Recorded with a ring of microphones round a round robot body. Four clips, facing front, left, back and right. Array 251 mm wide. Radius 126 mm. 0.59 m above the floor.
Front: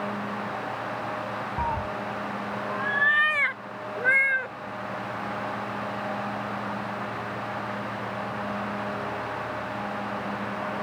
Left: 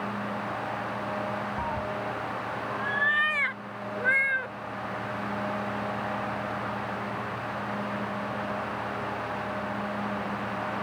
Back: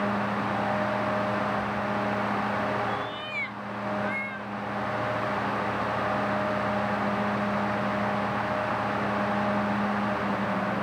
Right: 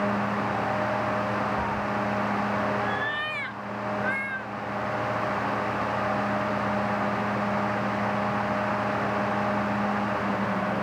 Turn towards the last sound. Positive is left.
turn(degrees=25)